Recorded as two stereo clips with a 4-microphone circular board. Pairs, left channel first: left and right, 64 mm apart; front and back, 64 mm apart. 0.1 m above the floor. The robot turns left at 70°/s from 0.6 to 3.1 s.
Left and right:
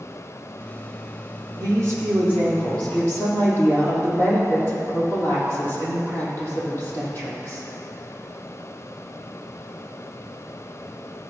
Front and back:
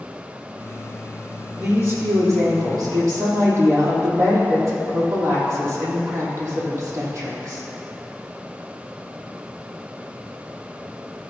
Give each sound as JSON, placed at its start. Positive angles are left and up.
{"t": 1.6, "sound": "a woman speaking", "azimuth_deg": -115, "distance_m": 3.5}